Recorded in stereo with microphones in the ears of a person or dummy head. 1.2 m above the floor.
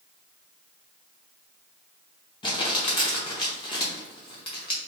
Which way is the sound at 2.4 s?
25° left (ahead or behind).